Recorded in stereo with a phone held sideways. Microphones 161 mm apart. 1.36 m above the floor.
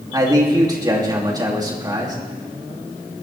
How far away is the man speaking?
About 3 m.